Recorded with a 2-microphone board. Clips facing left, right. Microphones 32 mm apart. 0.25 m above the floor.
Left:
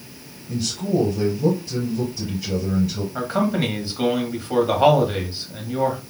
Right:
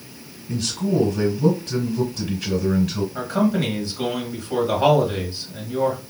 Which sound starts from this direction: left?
A man speaking, at 3.1 s.